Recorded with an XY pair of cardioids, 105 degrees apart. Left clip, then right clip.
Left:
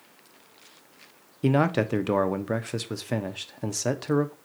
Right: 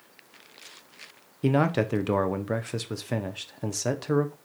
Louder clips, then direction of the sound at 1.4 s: Left 1 dB; straight ahead.